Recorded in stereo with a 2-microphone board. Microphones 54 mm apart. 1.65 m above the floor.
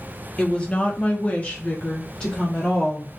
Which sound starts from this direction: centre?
A woman speaking, at 0.4 s.